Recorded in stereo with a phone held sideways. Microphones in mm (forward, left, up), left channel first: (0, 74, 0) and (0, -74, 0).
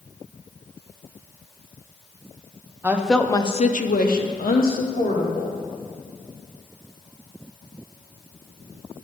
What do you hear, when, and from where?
2.8 s a woman speaking: 15° right (ahead or behind), 0.7 m; by 5.6 s 75° left (ahead or behind), 1.8 m